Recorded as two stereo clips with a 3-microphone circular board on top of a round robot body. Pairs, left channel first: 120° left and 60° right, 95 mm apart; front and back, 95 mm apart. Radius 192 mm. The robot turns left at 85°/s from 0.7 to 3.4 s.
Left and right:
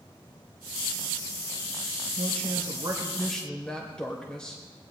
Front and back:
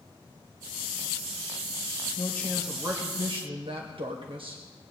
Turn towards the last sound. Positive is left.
turn(degrees=-160)